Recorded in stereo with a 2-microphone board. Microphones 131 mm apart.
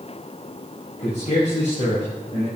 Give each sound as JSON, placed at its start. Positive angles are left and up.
{"t": 1.0, "sound": "a man speaking", "side_deg": 65, "distance_m": 4.5}